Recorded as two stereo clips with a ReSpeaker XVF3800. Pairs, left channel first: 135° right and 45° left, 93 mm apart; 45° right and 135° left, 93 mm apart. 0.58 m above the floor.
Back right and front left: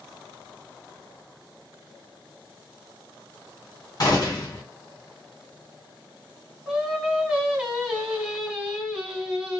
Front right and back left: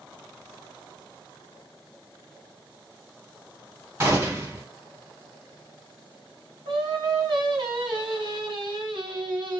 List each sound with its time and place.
4.0 s a gunshot: 175° right, 2.5 m
6.7 s singing: 125° left, 1.9 m